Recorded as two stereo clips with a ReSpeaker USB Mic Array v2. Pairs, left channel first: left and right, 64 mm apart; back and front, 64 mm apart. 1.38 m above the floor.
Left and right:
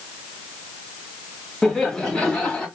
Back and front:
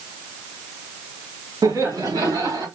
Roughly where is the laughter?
Ahead.